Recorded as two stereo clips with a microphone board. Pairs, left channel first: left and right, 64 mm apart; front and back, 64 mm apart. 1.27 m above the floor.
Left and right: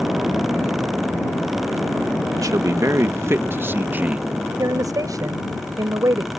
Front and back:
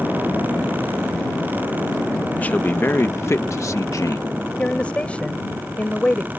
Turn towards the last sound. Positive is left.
turn(degrees=-70)